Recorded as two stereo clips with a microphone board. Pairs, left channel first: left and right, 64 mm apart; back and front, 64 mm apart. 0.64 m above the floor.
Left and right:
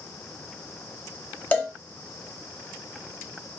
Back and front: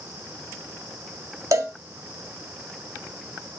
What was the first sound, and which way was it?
A cowbell, 30° left.